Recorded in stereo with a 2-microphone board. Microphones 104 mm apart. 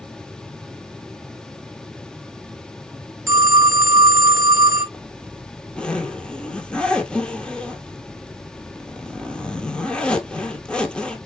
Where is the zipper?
10° left (ahead or behind), 0.8 m.